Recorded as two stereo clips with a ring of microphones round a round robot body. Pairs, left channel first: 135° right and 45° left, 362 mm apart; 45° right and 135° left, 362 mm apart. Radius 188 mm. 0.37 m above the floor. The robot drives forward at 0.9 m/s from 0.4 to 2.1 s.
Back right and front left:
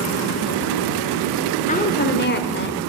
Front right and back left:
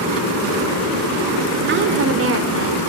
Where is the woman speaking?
170° left, 1.2 m; by 2.8 s 175° left, 1.5 m.